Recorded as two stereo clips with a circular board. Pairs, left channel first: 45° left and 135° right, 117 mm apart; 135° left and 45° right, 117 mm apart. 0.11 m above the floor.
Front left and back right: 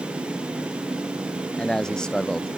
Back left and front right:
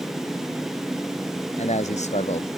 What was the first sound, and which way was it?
A man speaking, 130° left.